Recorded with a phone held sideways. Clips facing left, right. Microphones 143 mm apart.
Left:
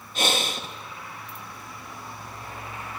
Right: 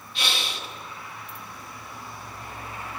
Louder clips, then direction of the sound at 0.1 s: Left 6 dB; 45° left (ahead or behind).